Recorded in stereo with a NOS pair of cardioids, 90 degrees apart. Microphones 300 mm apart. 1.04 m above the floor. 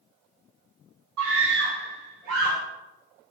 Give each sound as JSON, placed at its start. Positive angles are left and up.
{"t": 1.2, "sound": "a scream", "azimuth_deg": -70, "distance_m": 2.5}